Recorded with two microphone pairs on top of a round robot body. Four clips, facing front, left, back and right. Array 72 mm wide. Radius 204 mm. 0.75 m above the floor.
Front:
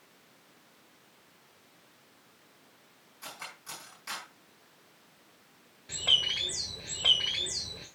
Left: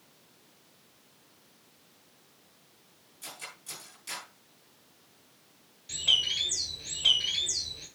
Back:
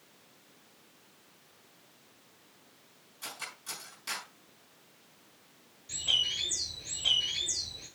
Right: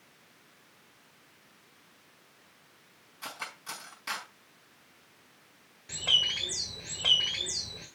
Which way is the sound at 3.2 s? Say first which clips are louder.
Right 6 dB, back 1 dB; 85° right.